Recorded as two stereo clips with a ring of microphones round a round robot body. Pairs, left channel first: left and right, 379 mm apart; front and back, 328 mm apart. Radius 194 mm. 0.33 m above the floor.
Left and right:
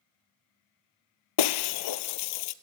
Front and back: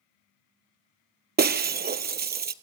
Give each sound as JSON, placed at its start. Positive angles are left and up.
{"t": 1.4, "sound": "breaking glass", "azimuth_deg": 120, "distance_m": 1.1}